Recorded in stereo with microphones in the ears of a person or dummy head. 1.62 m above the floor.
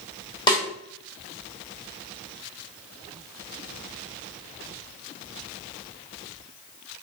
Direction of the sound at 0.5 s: 20° left (ahead or behind).